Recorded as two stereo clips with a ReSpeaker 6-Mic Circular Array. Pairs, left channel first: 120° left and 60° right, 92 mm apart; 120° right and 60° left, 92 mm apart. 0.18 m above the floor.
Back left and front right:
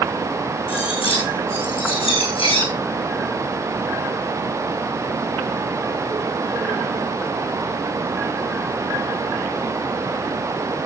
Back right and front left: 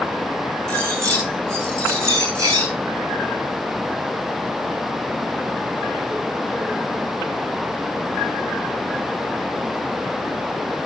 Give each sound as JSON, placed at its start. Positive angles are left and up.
{"t": 0.7, "sound": "cutlery clinking", "azimuth_deg": 120, "distance_m": 8.5}